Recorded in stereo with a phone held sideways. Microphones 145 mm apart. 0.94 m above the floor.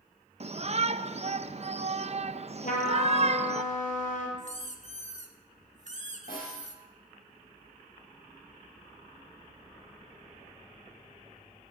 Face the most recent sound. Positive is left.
turn(degrees=85)